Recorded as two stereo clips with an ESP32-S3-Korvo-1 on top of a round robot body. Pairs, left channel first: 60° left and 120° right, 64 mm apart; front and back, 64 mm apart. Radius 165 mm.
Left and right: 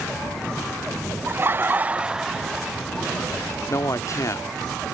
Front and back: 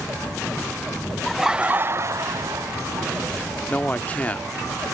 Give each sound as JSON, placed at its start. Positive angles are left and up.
{"t": 1.3, "sound": "laughter", "azimuth_deg": -85}
{"t": 3.7, "sound": "a man speaking", "azimuth_deg": 60}